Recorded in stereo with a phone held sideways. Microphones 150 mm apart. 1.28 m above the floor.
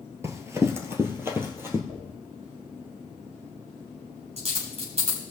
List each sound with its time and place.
0.2 s running footsteps: 20° right (ahead or behind), 1.5 m; by 1.8 s 15° right (ahead or behind), 2 m
1.9 s a dropped coin: 45° right (ahead or behind), 3.5 m